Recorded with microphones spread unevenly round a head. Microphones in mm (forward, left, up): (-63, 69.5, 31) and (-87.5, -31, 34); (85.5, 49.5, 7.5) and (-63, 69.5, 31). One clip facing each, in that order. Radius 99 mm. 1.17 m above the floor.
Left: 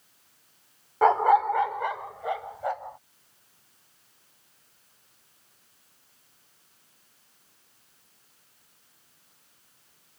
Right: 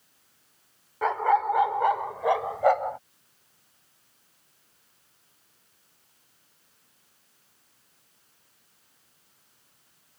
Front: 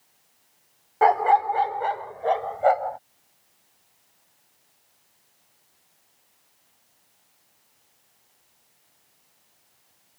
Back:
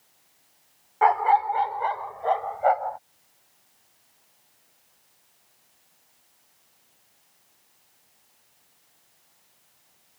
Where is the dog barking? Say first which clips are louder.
Left 4 dB, front 2 dB; 30° left; by 3.0 s 80° right.